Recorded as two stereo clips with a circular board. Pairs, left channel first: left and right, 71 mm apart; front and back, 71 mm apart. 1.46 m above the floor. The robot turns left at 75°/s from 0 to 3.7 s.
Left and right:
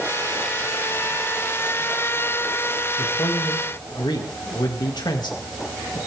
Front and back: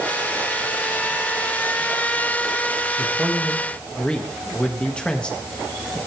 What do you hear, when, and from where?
3.0 s a man speaking: 130° left, 2.5 m; by 6.0 s 75° left, 2.5 m